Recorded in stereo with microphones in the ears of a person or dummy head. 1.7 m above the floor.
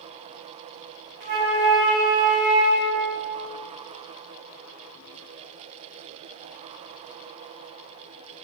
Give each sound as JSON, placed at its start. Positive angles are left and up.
{"t": 1.2, "sound": "a flute", "side_deg": -20, "distance_m": 0.9}